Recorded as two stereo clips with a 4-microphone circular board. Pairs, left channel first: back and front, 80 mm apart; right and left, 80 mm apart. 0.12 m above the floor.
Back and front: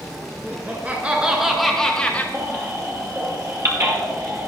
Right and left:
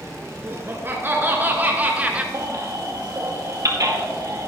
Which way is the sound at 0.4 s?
45° left.